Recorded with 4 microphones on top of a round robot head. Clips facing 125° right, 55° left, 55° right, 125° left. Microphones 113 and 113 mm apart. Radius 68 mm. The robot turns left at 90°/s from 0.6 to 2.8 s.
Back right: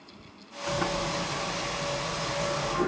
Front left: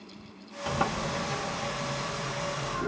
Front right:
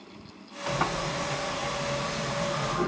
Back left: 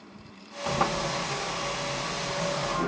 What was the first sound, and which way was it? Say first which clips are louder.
A sliding door: even, back left 2 dB; 80° left.